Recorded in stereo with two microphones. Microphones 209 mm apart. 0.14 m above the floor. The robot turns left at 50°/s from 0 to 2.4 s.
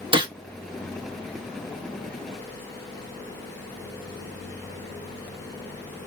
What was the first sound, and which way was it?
A gunshot, 25° right (ahead or behind).